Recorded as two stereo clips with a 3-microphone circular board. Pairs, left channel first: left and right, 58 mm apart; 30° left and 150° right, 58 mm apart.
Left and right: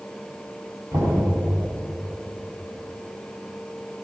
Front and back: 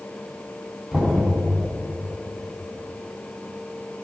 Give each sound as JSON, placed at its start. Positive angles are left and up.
{"t": 0.9, "sound": "knocking", "azimuth_deg": -55, "distance_m": 6.5}